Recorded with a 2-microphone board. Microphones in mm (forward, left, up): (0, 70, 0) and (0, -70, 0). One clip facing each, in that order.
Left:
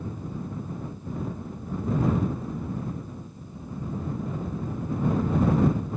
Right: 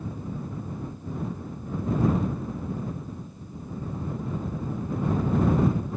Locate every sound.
Only background noise.